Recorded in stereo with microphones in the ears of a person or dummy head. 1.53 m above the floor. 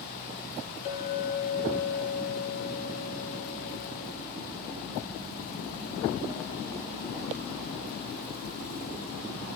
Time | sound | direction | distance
0.8 | a clink | 40° left (ahead or behind) | 2 m